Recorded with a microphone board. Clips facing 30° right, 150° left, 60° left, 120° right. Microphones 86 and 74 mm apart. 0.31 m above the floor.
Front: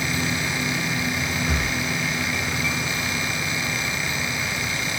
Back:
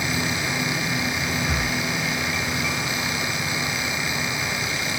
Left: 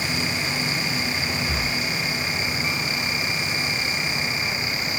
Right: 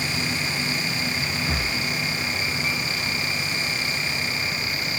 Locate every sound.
1.5 s breathing: 120° right, 3 m